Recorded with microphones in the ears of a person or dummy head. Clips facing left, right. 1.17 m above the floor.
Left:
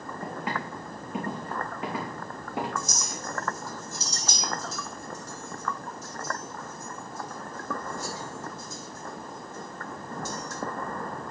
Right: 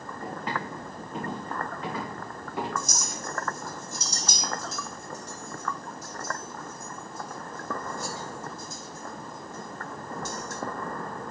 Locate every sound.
0.2 s footsteps: 5° left (ahead or behind), 4 m; by 2.7 s 25° left (ahead or behind), 5.5 m
2.8 s a clink: 55° right (ahead or behind), 1.0 m